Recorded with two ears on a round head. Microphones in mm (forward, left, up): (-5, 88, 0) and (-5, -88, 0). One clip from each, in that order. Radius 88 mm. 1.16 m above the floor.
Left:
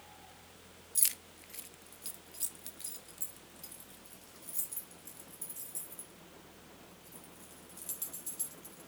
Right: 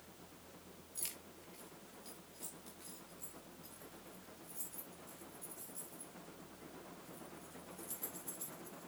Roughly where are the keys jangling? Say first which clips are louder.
Left 12 dB; left.